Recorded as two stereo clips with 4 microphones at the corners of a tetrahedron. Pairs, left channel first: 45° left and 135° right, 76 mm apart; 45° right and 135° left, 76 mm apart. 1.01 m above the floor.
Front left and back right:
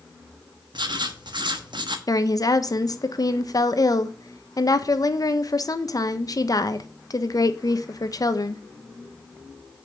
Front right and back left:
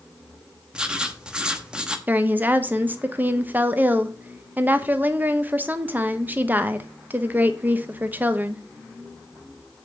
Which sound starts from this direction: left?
A woman speaking, at 2.1 s.